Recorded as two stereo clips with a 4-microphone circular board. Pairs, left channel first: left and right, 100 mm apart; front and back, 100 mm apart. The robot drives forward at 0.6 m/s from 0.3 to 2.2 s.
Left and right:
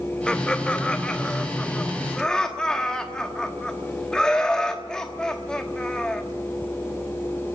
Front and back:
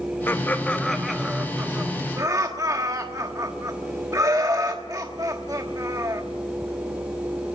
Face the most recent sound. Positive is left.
turn(degrees=165)